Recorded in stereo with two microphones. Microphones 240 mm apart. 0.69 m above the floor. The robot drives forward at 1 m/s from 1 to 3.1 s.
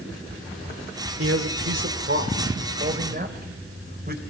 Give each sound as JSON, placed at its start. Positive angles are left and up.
{"t": 1.2, "sound": "a man speaking", "side_deg": -65, "distance_m": 2.5}